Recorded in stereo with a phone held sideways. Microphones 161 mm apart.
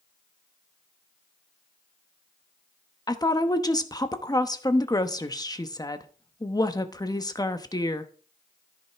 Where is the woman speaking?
25° left (ahead or behind), 1.0 m.